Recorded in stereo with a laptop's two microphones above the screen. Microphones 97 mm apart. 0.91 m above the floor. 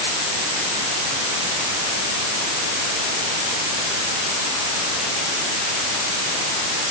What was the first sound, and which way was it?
Only background noise.